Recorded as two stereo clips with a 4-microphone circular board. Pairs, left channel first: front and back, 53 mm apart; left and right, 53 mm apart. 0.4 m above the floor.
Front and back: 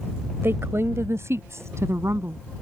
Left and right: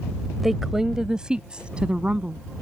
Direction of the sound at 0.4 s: 175° right.